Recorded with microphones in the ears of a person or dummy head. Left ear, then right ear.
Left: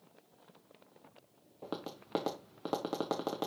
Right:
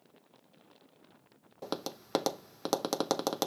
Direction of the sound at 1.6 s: 85° right.